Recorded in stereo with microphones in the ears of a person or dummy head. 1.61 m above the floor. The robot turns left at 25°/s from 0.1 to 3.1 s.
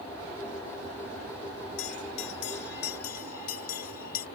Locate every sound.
1.8 s a bell: 75° left (ahead or behind); by 4.3 s 55° left (ahead or behind)